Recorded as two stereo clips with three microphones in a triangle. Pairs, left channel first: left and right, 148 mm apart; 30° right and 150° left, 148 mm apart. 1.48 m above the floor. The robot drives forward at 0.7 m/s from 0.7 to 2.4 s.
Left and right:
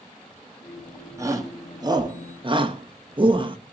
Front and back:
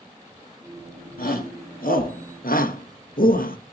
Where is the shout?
20° right, 2.5 m; by 3.6 s 35° right, 1.5 m.